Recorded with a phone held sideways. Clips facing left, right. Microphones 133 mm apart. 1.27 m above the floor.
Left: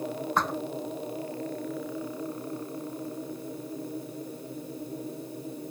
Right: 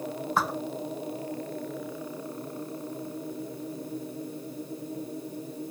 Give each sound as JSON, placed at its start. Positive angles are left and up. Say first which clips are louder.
{"t": 0.4, "sound": "a thud", "louder": "even", "side_deg": -5}